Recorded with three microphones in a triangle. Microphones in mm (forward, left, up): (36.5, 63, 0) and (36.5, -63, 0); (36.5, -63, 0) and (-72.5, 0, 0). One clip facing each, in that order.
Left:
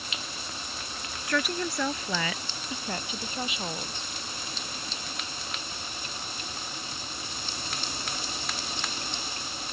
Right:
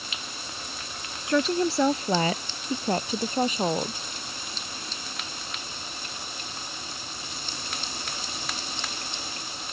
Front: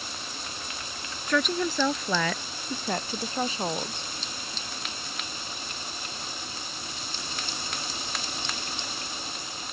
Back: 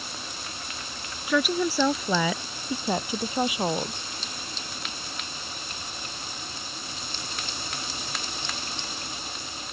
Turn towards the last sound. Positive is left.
turn(degrees=-135)